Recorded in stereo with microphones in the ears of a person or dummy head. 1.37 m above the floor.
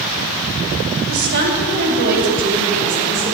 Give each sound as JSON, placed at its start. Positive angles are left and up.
{"t": 1.1, "sound": "a woman speaking", "side_deg": -80, "distance_m": 2.5}